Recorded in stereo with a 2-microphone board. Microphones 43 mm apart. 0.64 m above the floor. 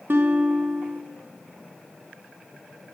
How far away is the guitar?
About 0.6 m.